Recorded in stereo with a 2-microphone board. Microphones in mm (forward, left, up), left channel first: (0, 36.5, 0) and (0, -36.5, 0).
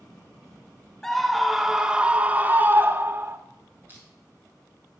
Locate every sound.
1.0 s a scream: 5° left (ahead or behind), 1.0 m; by 3.4 s 30° right (ahead or behind), 1.4 m
3.9 s crushing: 30° right (ahead or behind), 5.5 m